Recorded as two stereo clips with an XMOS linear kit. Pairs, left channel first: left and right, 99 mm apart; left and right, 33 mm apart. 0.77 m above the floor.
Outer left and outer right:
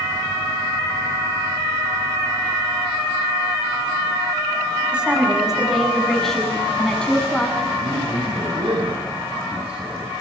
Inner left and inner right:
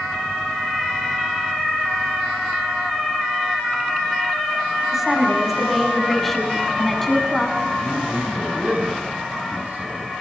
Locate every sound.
4.9 s a woman speaking: 10° right (ahead or behind), 6 m; by 7.7 s 15° left (ahead or behind), 7.5 m
7.8 s a man speaking: 60° right (ahead or behind), 5.5 m